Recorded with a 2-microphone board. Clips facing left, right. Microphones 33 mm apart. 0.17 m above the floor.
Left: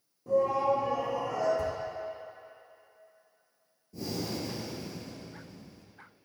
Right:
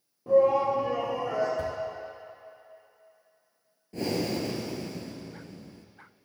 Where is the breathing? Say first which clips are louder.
Right 6 dB; 55° right (ahead or behind), 1.0 m.